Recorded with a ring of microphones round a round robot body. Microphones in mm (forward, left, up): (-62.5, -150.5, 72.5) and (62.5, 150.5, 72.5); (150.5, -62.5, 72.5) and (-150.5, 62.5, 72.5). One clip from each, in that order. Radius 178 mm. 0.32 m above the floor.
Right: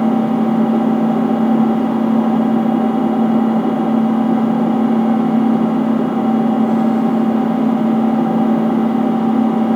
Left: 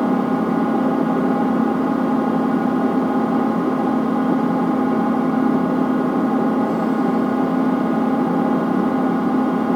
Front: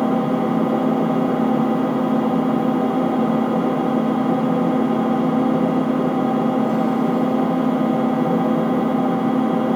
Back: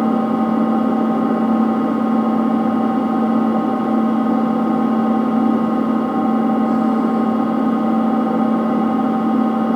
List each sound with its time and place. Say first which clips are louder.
0.0 s an engine running: right 3 dB, back 2 dB; 35° right, 5.5 m